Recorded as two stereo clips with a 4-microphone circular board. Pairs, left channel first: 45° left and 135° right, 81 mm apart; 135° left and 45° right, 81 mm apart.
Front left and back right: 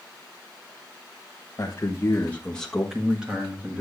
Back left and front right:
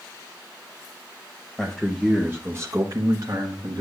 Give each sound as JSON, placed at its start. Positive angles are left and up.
{"t": 1.6, "sound": "a man speaking", "azimuth_deg": 50, "distance_m": 1.2}